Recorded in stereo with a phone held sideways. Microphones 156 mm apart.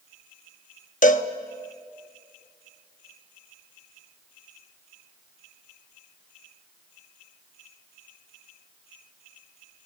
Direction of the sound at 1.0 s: 55° left (ahead or behind).